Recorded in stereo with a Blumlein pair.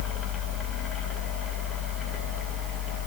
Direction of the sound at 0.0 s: 20° left.